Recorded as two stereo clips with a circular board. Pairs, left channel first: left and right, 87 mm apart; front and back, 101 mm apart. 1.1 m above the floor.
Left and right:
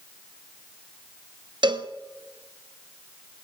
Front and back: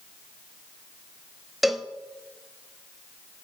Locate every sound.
1.6 s a cowbell: 90° right, 0.7 m